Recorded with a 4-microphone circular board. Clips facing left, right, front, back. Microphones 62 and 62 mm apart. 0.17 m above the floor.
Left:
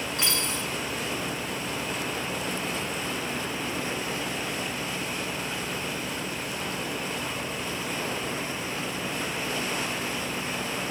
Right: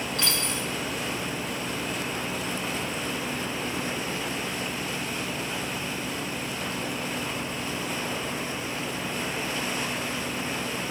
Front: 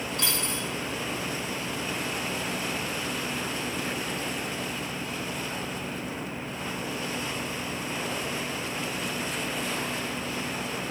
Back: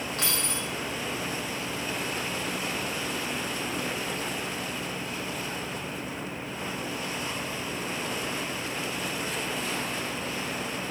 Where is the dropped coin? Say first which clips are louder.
Even, even; 165° left, 1.6 m.